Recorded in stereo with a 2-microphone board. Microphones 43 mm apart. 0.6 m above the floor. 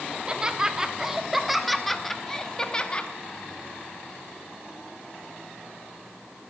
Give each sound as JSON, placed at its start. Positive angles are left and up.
{"t": 0.1, "sound": "laughter", "side_deg": -20, "distance_m": 1.6}